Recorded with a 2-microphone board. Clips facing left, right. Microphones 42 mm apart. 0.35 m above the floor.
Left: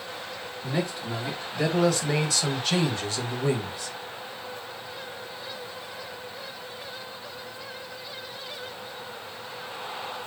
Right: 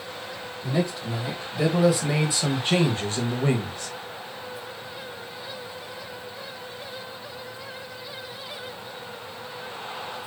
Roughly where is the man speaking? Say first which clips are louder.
Right 3 dB; centre.